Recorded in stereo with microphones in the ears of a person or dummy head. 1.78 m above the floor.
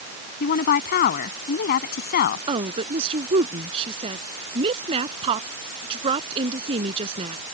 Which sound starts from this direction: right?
A woman speaking, at 2.5 s.